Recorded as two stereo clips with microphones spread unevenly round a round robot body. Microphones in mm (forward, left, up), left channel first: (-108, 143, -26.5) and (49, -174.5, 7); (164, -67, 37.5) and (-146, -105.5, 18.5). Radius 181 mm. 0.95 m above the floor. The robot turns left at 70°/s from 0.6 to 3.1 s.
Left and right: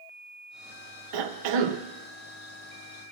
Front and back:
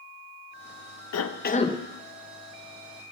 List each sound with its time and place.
1.1 s a cough: 30° right, 0.8 m; by 1.8 s 80° right, 0.8 m